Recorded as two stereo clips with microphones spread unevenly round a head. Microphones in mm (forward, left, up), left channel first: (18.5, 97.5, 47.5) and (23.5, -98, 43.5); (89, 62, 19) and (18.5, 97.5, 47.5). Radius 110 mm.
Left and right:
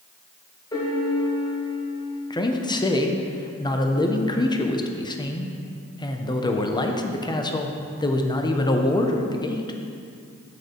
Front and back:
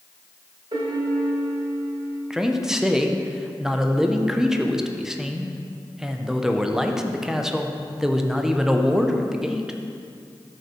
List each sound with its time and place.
0.7 s a piano: 160° left, 1.4 m
2.3 s a man speaking: 40° left, 0.7 m